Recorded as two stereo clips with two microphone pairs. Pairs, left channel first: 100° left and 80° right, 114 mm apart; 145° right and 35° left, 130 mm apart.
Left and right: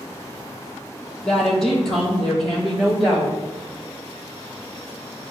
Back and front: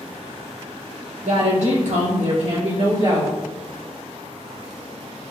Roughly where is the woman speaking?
Ahead.